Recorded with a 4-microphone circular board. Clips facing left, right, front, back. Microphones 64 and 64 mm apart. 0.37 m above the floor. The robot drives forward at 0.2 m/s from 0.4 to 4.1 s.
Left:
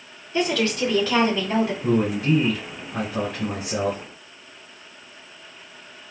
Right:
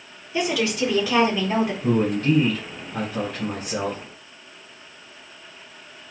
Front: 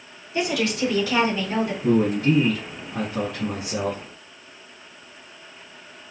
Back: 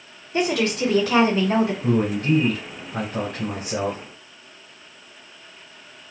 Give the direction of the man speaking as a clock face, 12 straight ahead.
6 o'clock.